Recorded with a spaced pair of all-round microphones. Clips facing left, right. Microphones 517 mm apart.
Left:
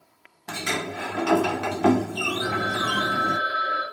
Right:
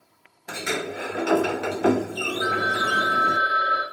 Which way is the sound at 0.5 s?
20° left (ahead or behind).